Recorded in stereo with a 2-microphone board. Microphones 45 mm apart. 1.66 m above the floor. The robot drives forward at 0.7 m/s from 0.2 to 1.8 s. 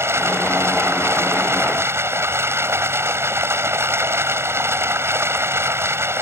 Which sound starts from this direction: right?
Running water, at 0.0 s.